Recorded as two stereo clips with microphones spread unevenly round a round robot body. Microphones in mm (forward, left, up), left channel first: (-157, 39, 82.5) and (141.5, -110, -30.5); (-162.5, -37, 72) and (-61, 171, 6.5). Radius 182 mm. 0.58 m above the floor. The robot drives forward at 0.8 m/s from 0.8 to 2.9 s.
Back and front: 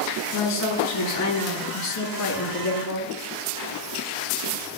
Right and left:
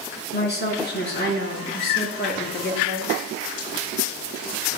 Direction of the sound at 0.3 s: 160° right.